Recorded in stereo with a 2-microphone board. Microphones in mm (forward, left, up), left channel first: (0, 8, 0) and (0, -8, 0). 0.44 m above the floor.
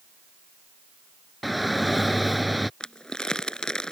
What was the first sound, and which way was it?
A shout, centre (ahead or behind).